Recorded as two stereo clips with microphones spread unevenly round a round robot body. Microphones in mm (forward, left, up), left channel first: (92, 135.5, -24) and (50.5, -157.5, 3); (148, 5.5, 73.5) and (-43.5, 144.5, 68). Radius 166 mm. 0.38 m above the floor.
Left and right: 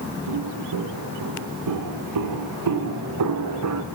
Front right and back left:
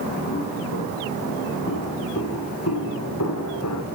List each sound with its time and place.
0.3 s footsteps: 90° right, 5.5 m; by 3.8 s 65° right, 2.5 m